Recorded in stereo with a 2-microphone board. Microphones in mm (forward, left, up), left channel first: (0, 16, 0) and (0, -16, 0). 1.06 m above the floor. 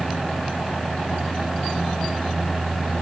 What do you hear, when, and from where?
Only background noise.